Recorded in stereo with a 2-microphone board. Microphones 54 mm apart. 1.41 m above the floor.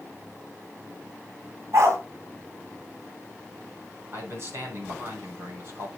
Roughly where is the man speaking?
Right.